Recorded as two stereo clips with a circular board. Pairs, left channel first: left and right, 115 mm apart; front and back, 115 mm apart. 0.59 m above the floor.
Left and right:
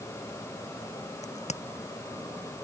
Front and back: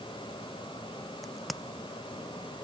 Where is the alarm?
I don't hear an alarm.